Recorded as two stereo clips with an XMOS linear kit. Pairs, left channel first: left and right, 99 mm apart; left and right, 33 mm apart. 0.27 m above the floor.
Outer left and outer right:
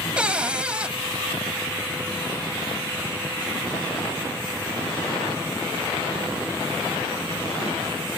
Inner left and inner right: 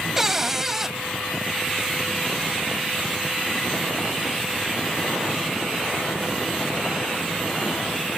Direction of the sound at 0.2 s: 10° right (ahead or behind).